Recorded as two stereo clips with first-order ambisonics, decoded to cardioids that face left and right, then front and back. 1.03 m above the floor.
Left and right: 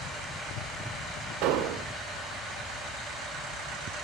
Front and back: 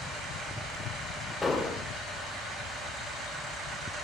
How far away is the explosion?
About 1.2 m.